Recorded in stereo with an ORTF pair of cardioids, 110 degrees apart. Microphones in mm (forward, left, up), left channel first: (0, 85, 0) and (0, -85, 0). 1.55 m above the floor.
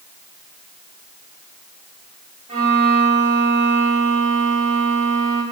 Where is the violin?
35° right, 3 m.